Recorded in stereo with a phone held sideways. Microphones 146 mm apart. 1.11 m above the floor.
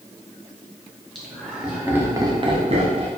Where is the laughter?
Centre (ahead or behind), 1.8 m; by 3.1 s 45° right (ahead or behind), 1.0 m.